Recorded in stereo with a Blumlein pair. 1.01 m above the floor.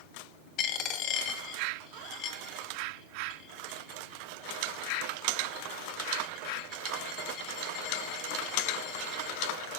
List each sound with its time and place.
0.6 s a dropped coin: 35° left, 2.0 m